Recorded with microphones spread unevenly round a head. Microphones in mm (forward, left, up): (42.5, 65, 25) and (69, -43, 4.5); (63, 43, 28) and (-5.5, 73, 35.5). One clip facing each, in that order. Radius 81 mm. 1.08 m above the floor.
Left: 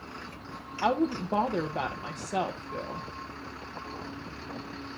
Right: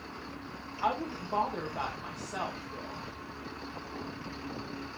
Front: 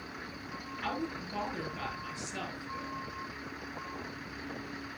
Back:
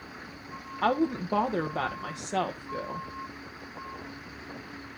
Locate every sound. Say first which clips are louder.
0.8 s a woman speaking: left 6 dB, back 11 dB; 155° left, 0.9 m